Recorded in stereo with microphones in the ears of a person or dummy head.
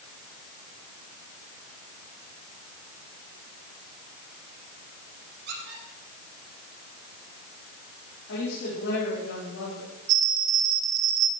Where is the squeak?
65° right (ahead or behind), 7 m.